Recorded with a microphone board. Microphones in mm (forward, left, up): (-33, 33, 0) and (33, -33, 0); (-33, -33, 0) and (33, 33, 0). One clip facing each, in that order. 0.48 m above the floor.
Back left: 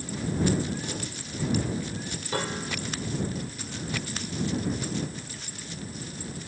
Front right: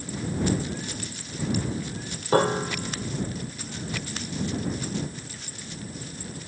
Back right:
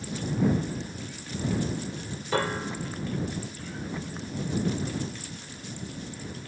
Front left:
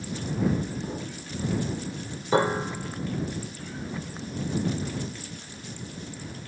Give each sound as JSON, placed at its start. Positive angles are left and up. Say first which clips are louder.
{"t": 0.8, "sound": "an explosion", "louder": "back left 1 dB, front left 5 dB", "azimuth_deg": 65}
{"t": 2.3, "sound": "a piano", "louder": "front right 10 dB, front left 5 dB", "azimuth_deg": -15}